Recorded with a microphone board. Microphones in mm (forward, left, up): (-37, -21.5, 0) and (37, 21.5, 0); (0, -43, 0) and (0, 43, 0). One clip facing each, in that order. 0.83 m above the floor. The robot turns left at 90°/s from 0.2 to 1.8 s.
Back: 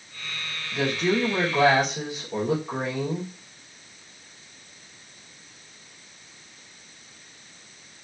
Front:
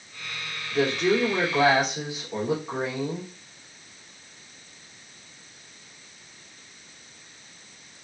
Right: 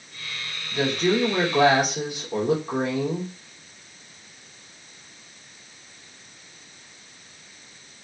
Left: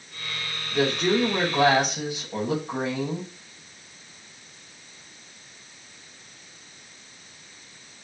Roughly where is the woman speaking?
Ahead left.